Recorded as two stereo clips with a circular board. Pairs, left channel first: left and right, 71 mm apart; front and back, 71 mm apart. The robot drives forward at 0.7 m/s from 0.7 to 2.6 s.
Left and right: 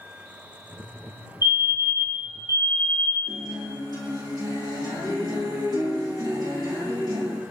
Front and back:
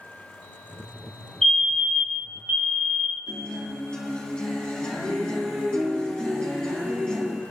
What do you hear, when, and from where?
1.4 s a fire alarm: 75° right, 1.6 m; by 3.4 s 120° right, 1.7 m
3.3 s a guitar: 75° right, 4 m